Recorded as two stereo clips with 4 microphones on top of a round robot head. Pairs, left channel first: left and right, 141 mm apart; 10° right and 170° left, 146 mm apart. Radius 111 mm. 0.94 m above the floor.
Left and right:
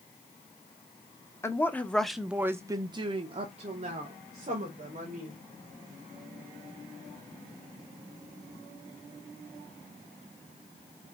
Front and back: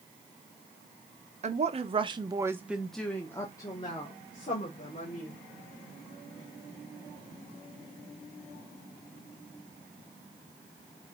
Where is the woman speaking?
155° left, 1.0 m; by 5.4 s 55° right, 2.0 m.